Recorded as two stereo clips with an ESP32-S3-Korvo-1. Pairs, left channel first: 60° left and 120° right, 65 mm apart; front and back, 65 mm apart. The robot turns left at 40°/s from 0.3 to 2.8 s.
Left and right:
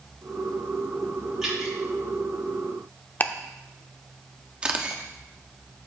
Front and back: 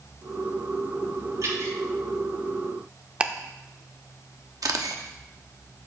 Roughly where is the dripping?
Behind.